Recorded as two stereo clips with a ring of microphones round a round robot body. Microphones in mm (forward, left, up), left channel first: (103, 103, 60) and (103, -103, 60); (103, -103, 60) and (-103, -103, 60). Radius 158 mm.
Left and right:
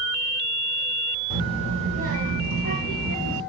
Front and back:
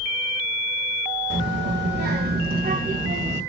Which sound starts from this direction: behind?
A child speaking, at 1.3 s.